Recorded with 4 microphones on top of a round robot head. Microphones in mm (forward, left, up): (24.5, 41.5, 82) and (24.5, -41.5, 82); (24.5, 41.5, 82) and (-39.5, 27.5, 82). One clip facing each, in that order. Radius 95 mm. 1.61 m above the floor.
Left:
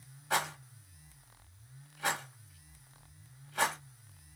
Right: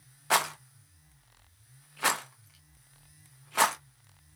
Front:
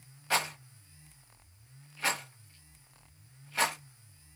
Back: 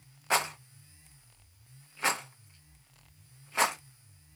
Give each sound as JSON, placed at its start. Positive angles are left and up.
{"t": 0.3, "sound": "a rattle", "azimuth_deg": -95, "distance_m": 0.9}